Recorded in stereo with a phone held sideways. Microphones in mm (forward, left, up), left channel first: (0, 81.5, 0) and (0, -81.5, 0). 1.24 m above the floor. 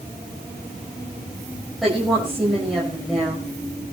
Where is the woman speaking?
Centre (ahead or behind), 6 m.